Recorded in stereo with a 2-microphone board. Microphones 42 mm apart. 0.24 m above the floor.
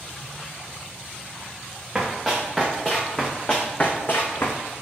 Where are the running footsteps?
10° right (ahead or behind), 1.8 m; by 4.6 s 75° left (ahead or behind), 0.9 m.